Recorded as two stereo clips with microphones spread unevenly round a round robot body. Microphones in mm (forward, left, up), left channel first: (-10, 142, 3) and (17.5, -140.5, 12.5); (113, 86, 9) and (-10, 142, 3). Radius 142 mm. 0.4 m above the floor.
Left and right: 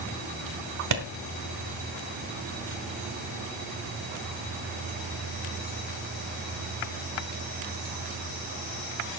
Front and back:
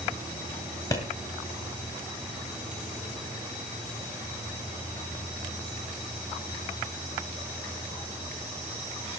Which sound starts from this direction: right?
A clap, at 0.9 s.